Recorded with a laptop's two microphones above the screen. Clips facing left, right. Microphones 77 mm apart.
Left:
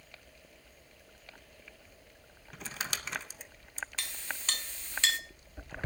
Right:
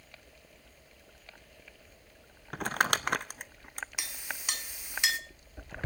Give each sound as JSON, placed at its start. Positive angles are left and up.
{"t": 2.5, "sound": "crumpling", "side_deg": -60, "distance_m": 0.6}
{"t": 4.0, "sound": "a clink", "side_deg": -15, "distance_m": 0.6}